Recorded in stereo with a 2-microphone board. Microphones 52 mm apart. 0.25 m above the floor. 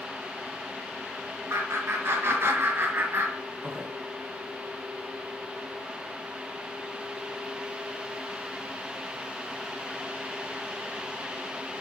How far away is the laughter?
About 2.5 m.